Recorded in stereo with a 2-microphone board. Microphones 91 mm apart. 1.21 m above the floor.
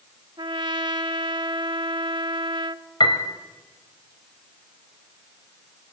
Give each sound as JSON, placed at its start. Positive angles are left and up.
{"t": 0.4, "sound": "a trumpet", "side_deg": -60, "distance_m": 1.0}
{"t": 3.0, "sound": "a piano", "side_deg": 60, "distance_m": 2.5}